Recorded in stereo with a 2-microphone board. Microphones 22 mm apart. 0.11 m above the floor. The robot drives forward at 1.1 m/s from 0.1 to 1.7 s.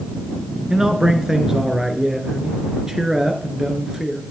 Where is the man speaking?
25° right (ahead or behind), 1.5 m; by 4.2 s 20° right (ahead or behind), 1.7 m.